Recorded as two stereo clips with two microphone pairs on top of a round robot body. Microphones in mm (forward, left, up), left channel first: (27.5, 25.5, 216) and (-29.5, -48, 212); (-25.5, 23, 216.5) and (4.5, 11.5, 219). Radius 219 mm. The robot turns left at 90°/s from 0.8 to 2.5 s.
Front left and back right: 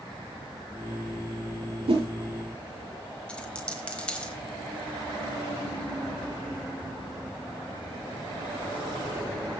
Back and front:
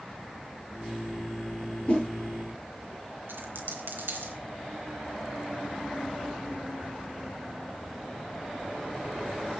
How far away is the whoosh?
About 8 m.